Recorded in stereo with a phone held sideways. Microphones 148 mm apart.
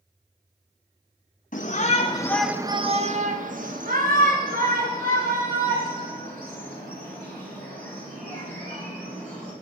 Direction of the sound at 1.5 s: 60° left (ahead or behind).